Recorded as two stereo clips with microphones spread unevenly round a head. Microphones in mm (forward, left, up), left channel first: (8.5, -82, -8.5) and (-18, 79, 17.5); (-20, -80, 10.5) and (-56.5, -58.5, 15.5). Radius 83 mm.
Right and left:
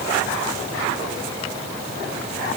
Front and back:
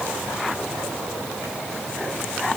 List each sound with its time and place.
Only background noise.